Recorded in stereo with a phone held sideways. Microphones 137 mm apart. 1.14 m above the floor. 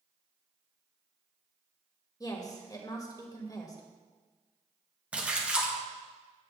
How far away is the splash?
About 1.6 m.